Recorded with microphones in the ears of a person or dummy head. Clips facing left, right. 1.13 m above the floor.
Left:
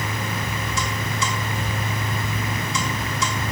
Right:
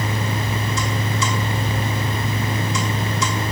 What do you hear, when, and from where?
Only background noise.